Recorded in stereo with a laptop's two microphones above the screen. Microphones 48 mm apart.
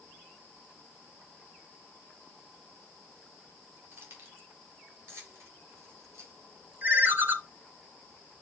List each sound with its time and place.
3.9 s keys jangling: 50° right (ahead or behind), 2.5 m; by 6.3 s 65° right (ahead or behind), 4 m
6.8 s a ringtone: 40° right (ahead or behind), 0.9 m